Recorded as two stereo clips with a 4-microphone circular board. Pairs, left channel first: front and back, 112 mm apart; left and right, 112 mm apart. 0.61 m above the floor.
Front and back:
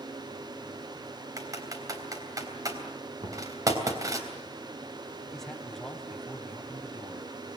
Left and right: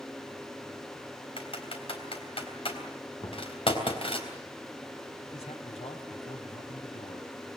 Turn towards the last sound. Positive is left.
turn(degrees=85)